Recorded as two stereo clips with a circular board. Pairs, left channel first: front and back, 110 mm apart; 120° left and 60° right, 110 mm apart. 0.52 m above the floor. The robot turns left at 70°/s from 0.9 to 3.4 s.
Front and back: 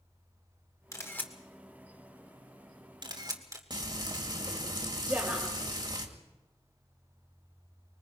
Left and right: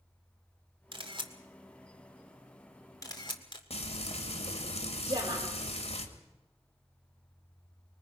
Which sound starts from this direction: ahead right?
A camera shutter, at 0.9 s.